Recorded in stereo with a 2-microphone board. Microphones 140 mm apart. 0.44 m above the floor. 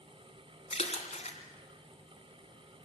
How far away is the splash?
About 3 m.